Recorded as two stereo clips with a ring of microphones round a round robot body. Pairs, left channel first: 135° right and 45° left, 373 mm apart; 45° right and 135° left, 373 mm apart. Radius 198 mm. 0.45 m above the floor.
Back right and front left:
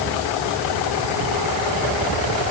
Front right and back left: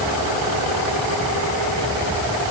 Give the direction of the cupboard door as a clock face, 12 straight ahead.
No cupboard door in this recording.